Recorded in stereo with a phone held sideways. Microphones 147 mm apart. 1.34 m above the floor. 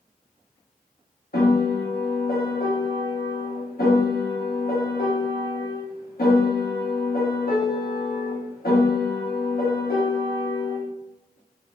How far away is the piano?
About 1.0 m.